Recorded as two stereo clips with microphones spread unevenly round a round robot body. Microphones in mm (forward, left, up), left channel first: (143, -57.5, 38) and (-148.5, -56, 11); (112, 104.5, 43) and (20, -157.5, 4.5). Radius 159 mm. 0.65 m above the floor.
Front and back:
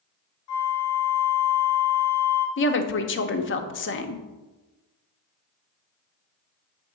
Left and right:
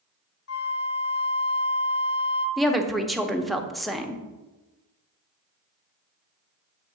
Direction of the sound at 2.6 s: 30° right.